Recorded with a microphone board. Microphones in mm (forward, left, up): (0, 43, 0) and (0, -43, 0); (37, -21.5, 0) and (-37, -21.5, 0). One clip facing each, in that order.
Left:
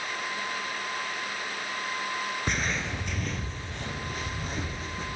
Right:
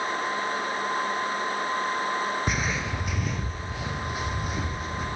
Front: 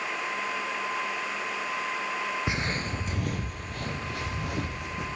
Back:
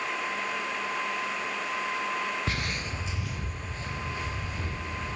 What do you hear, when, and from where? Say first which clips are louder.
2.5 s footsteps: right 2 dB, front 2 dB; 10° right, 0.6 m; by 5.1 s 5° right, 2.5 m